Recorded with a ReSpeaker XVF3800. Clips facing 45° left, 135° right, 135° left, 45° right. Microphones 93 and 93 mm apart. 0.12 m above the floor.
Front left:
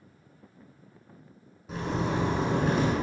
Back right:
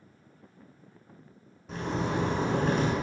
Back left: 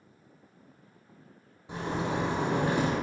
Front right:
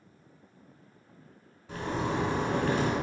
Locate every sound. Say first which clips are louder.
1.7 s a zipper: front left 1 dB, even; 125° left, 0.6 m